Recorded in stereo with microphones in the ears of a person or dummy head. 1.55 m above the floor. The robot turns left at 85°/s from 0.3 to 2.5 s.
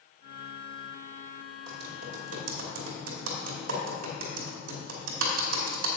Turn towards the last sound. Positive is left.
turn(degrees=-85)